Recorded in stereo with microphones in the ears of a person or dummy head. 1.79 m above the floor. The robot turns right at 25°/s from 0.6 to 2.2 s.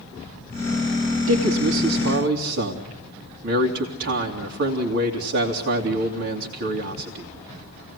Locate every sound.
1.3 s a man speaking: 80° right, 2.5 m; by 7.3 s 70° right (ahead or behind), 2.5 m